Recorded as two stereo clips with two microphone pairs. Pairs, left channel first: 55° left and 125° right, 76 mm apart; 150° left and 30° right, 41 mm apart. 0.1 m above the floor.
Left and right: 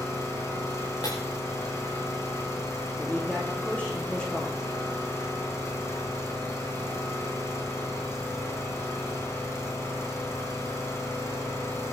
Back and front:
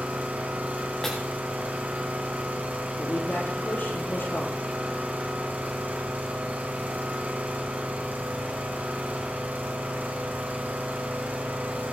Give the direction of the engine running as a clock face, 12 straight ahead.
12 o'clock.